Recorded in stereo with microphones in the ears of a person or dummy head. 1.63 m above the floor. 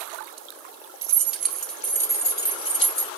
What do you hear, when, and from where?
1.0 s keys jangling: 15° right (ahead or behind), 1.1 m; by 3.1 s 35° left (ahead or behind), 1.8 m